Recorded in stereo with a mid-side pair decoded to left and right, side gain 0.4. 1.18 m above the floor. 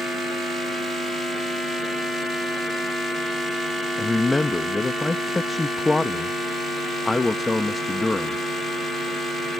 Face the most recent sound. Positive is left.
turn(degrees=20)